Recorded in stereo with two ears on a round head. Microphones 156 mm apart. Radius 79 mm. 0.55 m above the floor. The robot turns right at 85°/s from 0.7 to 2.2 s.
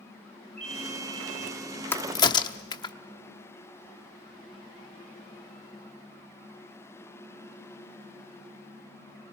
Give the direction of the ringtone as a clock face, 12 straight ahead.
6 o'clock.